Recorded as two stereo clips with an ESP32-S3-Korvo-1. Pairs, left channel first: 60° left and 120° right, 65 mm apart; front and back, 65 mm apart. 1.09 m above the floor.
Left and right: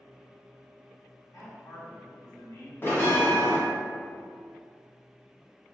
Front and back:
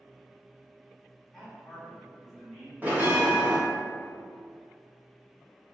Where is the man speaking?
85° left, 1.1 m.